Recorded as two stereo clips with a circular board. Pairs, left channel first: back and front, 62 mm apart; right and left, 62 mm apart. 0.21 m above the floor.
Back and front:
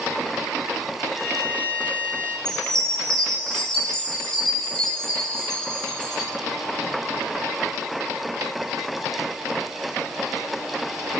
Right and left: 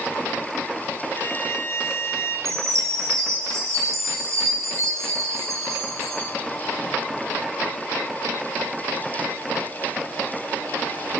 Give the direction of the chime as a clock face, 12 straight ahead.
9 o'clock.